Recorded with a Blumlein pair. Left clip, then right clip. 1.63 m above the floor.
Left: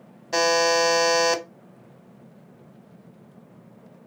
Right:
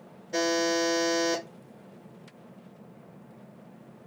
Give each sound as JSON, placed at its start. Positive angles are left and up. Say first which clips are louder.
{"t": 0.3, "sound": "a buzzer", "louder": "left 7 dB", "azimuth_deg": 50, "distance_m": 1.0}